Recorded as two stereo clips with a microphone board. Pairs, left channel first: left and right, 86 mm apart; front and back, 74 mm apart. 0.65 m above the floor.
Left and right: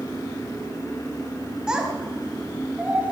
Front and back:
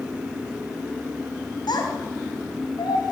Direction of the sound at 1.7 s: 10° right.